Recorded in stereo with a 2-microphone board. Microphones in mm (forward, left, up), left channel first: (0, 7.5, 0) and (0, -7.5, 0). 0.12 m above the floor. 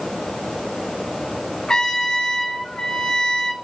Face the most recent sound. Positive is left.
turn(degrees=55)  # may be behind; listen again after turning